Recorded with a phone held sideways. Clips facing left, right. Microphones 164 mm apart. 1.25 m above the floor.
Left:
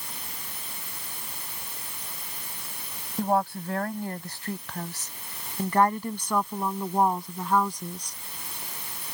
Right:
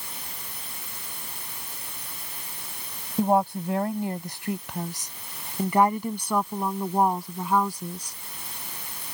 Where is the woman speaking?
20° right (ahead or behind); by 8.2 s 5° right (ahead or behind).